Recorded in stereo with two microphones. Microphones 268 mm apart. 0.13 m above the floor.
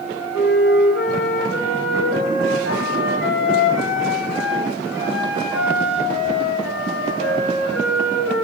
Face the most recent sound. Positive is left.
turn(degrees=60)  # may be behind; listen again after turning